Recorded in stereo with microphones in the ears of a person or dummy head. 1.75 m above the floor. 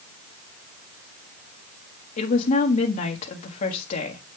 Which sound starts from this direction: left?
A woman speaking, at 2.2 s.